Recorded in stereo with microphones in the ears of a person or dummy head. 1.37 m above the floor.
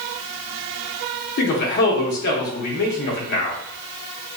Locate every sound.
1.4 s a man speaking: 50° left (ahead or behind), 0.7 m